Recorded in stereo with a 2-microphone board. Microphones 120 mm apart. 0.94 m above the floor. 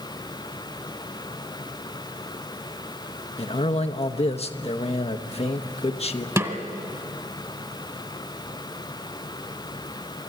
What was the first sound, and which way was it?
A man speaking, 55° left (ahead or behind).